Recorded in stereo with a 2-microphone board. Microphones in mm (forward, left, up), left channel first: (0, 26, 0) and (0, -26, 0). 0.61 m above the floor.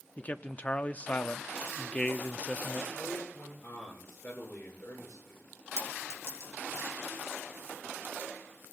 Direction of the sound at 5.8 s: 55° right (ahead or behind).